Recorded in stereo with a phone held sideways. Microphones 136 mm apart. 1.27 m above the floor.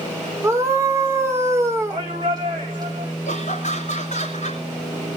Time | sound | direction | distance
0.4 | a scream | 20° right (ahead or behind) | 2 m
1.9 | a shout | 30° right (ahead or behind) | 4 m
3.2 | laughter | 60° left (ahead or behind) | 3 m